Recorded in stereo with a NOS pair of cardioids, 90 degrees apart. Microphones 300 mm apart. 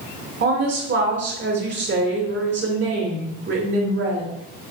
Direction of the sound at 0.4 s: 40° right.